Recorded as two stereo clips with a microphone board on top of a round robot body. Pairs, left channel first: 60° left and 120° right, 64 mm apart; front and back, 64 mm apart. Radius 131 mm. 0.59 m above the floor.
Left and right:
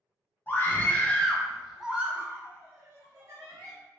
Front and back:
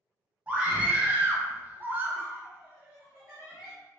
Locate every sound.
0.5 s a scream: 110° left, 1.0 m; by 3.7 s 100° right, 1.2 m